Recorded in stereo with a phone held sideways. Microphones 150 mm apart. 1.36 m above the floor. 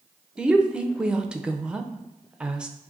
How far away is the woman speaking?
About 0.5 m.